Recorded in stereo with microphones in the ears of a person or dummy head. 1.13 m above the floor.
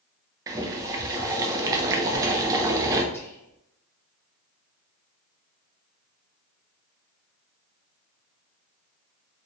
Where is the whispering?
15° left (ahead or behind), 0.7 m.